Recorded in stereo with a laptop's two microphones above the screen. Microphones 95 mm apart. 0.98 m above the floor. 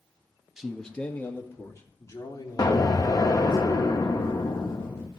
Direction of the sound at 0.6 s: 5° right (ahead or behind).